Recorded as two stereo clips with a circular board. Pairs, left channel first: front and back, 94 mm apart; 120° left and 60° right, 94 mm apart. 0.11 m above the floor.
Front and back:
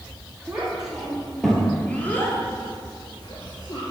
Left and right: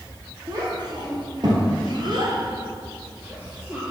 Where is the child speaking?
100° right, 2.0 m; by 3.8 s 10° left, 1.3 m.